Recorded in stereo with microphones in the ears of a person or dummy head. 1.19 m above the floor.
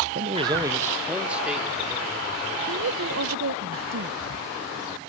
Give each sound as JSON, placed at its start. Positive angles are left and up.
{"t": 0.1, "sound": "a man speaking", "side_deg": -45, "distance_m": 0.6}
{"t": 2.7, "sound": "a woman speaking", "side_deg": -65, "distance_m": 0.7}